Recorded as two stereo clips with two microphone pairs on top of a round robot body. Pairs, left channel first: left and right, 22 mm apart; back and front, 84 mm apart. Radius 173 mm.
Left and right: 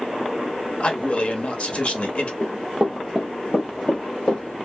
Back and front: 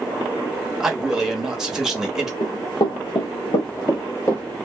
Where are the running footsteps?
130° right, 1.0 m; by 4.4 s 115° left, 1.1 m.